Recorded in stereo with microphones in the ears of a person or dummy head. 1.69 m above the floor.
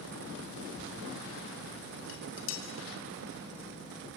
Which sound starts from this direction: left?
Dishes clattering, at 2.1 s.